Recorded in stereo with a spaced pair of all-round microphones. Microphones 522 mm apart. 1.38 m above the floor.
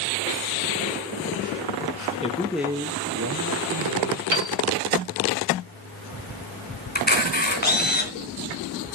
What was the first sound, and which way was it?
A man speaking, 10° left (ahead or behind).